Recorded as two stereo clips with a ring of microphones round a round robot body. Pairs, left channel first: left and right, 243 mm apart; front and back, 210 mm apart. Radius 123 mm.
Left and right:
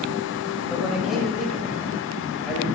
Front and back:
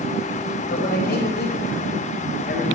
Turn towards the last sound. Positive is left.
turn(degrees=0)